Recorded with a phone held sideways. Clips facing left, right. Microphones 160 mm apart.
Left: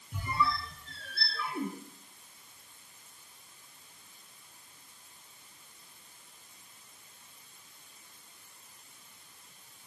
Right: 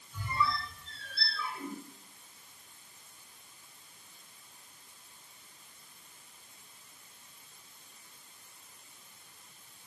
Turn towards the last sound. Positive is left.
turn(degrees=75)  # may be behind; listen again after turning